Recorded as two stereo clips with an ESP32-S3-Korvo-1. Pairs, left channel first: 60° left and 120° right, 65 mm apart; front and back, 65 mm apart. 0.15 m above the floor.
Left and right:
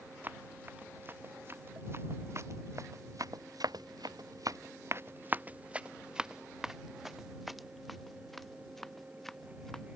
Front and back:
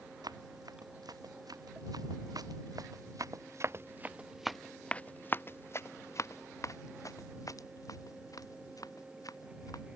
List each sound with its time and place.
0.2 s running footsteps: straight behind; by 10.0 s 25° right